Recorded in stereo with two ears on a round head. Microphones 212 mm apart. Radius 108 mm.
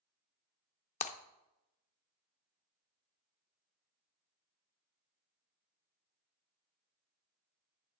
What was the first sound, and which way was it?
Breaking glass, 30° left (ahead or behind).